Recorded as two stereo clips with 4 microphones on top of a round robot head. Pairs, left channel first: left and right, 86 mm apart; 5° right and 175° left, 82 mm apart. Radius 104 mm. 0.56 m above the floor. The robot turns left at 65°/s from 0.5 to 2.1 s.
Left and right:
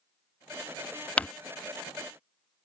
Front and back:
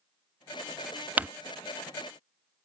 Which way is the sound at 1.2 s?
145° left.